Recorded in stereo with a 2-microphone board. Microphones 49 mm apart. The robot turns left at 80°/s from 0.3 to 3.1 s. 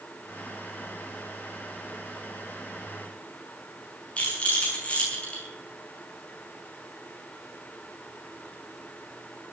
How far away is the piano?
No piano in this recording.